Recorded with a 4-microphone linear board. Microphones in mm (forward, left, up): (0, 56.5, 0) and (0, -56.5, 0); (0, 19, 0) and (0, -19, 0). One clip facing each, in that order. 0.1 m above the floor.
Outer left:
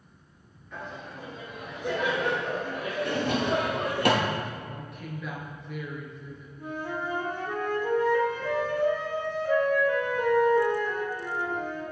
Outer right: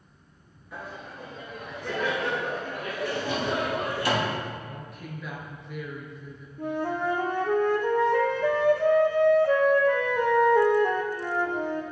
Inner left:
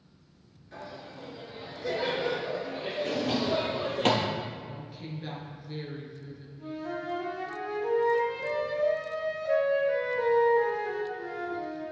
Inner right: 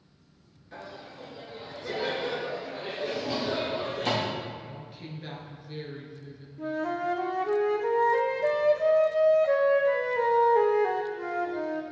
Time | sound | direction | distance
0.7 | laughter | 10° right (ahead or behind) | 1.3 m
3.0 | a drawer | 65° left (ahead or behind) | 1.1 m
4.6 | a woman speaking | centre (ahead or behind) | 1.4 m
6.6 | a flute | 70° right (ahead or behind) | 1.0 m